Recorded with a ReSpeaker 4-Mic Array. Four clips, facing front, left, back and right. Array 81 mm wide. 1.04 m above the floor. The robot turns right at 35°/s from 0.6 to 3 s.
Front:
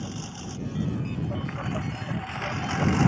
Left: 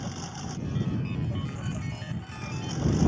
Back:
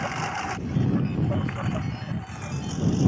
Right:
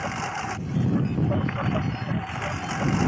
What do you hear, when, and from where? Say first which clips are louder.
0.0 s a lawn mower: right 8 dB, back 8 dB; 130° right; by 3.1 s 45° right